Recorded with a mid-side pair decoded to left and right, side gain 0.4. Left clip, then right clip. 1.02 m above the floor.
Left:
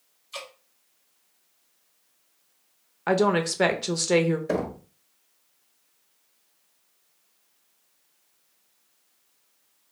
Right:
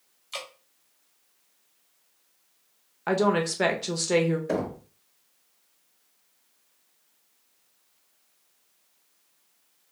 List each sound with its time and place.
0.3 s dripping: 70° right, 1.5 m
3.1 s a woman speaking: 25° left, 0.7 m
4.5 s knocking: 20° left, 0.9 m